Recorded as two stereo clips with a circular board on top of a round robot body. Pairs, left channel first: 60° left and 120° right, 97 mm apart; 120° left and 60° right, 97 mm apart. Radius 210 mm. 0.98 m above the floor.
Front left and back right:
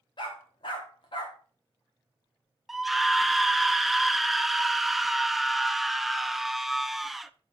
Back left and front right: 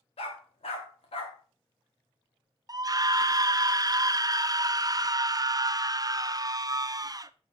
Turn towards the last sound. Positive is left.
turn(degrees=-30)